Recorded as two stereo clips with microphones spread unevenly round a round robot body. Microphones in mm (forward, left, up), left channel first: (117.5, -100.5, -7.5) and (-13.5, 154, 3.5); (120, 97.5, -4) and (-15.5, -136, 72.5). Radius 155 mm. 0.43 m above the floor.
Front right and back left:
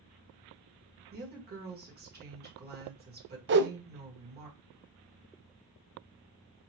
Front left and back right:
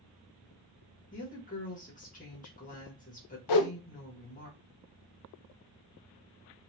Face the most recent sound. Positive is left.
turn(degrees=65)